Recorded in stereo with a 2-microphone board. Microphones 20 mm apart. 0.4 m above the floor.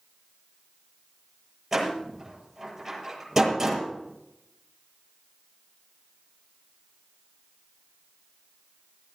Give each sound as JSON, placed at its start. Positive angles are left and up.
{"t": 1.7, "sound": "a door slam", "side_deg": -25, "distance_m": 8.0}